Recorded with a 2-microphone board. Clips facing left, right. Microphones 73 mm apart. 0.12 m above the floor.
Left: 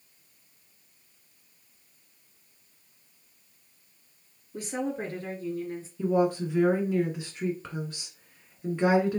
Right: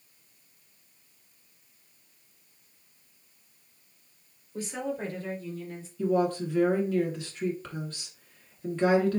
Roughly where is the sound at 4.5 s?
Left.